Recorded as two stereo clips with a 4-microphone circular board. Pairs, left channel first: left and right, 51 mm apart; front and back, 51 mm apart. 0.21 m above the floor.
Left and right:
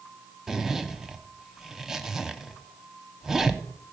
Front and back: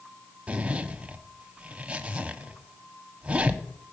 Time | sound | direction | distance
0.5 | a zipper | 165° right | 0.7 m